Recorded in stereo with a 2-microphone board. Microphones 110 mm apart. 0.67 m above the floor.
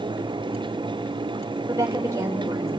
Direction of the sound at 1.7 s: 30° right (ahead or behind).